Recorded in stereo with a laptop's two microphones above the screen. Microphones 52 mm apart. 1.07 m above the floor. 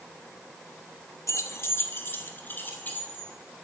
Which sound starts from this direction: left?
Keys jangling, at 1.3 s.